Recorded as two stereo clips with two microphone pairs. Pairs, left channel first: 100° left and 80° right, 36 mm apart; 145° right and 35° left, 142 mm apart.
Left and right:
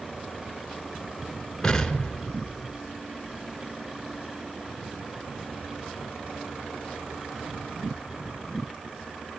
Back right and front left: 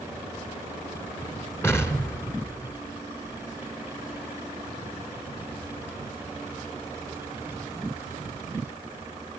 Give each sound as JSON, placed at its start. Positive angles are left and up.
{"t": 1.6, "sound": "an explosion", "azimuth_deg": 165, "distance_m": 1.5}